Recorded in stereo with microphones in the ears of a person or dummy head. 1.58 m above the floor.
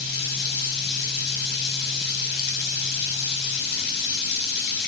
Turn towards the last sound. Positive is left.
turn(degrees=60)  # may be behind; listen again after turning